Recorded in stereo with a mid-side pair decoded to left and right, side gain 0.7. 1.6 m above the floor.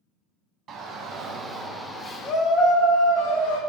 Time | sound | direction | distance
0.7 | a shout | 40° right | 1.0 m